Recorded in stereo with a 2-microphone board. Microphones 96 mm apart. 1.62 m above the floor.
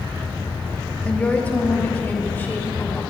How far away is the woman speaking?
About 1.2 m.